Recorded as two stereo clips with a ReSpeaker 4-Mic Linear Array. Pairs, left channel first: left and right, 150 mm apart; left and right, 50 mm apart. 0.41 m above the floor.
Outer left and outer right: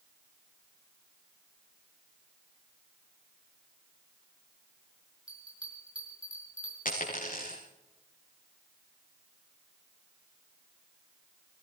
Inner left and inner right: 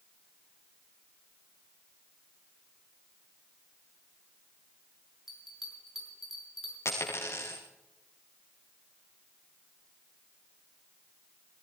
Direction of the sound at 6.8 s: 65° left (ahead or behind).